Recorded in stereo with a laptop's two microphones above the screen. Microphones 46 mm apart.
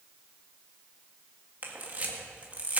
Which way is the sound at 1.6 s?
35° right (ahead or behind).